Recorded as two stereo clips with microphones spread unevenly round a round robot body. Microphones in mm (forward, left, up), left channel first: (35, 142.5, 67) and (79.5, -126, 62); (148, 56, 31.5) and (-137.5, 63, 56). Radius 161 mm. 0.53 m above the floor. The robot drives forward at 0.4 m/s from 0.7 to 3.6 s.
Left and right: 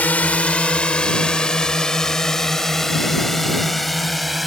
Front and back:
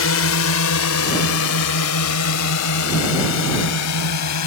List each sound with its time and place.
0.0 s a drone: 15° left; by 4.5 s 10° left